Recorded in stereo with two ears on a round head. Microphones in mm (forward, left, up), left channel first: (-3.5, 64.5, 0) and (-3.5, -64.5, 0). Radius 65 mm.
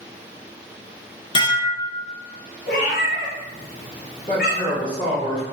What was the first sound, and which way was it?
Dishes clattering, 35° left (ahead or behind).